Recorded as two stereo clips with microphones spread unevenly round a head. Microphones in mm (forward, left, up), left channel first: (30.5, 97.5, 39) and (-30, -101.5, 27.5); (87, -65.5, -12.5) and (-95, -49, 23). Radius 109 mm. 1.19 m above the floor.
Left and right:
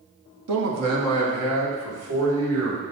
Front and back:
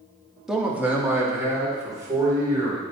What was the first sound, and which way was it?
A man speaking, 95° right.